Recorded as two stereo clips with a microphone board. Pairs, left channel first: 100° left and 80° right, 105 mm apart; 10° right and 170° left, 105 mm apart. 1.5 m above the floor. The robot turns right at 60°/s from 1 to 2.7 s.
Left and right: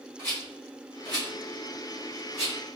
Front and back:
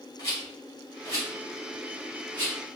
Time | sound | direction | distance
0.2 | a rattle | 45° left | 2.0 m